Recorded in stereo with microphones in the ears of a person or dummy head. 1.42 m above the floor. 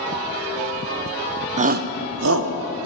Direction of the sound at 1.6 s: 40° right (ahead or behind).